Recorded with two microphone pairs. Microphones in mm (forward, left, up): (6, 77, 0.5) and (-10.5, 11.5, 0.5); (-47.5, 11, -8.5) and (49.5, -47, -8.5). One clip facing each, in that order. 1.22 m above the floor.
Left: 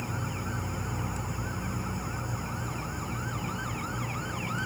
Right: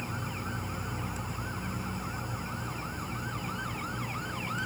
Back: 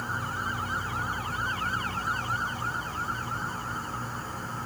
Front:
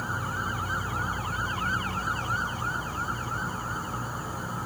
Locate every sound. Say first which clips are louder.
0.0 s an insect: left 2 dB, front 1 dB; 30° left, 0.9 m